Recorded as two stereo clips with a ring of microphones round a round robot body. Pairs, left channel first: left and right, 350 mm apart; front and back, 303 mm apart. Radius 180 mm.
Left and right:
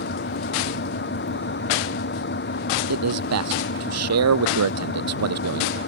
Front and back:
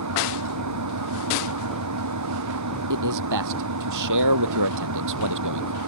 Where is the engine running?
150° left.